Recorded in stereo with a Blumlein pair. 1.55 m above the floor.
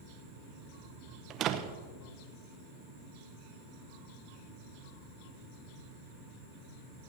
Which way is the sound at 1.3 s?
30° right.